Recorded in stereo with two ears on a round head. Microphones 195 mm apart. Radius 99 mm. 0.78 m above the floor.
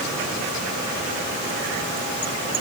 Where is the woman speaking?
No woman speaking in this recording.